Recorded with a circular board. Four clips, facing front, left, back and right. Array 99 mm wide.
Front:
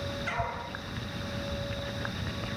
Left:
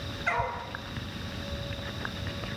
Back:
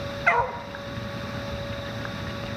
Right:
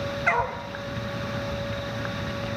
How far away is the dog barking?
About 1.9 m.